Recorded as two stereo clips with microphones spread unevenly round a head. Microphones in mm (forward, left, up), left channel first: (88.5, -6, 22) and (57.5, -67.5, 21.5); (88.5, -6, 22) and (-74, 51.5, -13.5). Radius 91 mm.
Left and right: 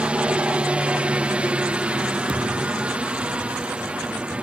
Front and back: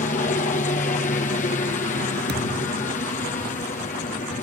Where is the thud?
155° right.